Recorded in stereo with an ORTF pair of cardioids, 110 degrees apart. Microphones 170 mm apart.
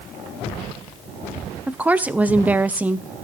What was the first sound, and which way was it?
A woman speaking, 10° right.